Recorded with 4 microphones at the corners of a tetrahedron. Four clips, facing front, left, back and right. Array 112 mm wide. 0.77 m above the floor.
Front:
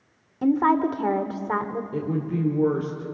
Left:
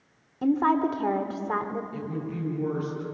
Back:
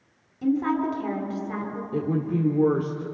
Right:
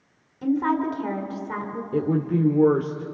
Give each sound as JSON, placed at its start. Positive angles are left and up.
{"t": 0.4, "sound": "a woman speaking", "azimuth_deg": 20, "distance_m": 2.0}
{"t": 1.9, "sound": "a woman speaking", "azimuth_deg": -95, "distance_m": 2.0}